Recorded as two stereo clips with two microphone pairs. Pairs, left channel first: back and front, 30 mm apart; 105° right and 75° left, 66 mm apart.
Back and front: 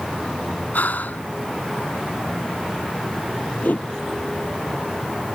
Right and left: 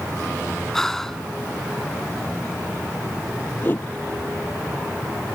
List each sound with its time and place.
0.7 s breathing: 170° left
3.6 s a whoosh: 165° right